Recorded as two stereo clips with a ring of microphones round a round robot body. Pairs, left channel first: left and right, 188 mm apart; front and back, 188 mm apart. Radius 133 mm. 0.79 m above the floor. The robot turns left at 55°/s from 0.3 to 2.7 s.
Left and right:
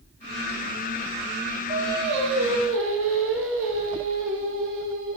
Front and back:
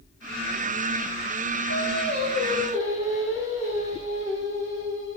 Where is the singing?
45° right, 4.5 m; by 5.2 s 100° right, 4.5 m.